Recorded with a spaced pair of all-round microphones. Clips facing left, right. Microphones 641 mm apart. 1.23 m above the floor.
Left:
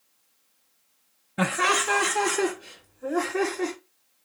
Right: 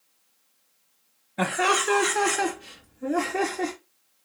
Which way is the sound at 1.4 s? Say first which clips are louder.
Right 1 dB; 45° left (ahead or behind).